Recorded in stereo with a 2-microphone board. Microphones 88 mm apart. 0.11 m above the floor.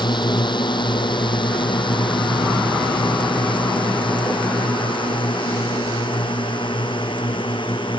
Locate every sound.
0.0 s a drone: 65° left (ahead or behind); by 8.0 s 75° left (ahead or behind)